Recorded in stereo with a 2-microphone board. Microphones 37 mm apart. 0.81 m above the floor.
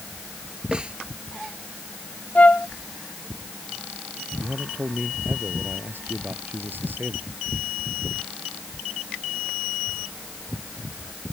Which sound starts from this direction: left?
A flute, at 2.4 s.